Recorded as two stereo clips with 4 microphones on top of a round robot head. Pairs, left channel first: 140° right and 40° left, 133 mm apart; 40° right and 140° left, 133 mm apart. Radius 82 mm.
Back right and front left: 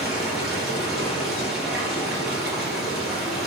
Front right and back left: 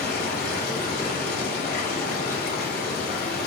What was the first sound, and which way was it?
Running water, 50° right.